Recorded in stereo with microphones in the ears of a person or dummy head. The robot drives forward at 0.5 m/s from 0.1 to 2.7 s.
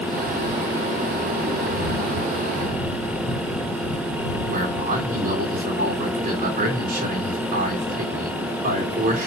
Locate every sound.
4.5 s a man speaking: 50° right (ahead or behind), 3.5 m